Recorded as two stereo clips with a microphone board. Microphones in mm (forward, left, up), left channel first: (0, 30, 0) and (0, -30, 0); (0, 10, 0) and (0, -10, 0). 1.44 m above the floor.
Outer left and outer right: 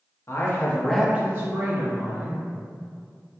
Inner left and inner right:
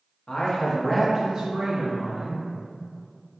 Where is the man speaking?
50° left (ahead or behind), 1.1 m; by 2.5 s 75° right (ahead or behind), 1.8 m.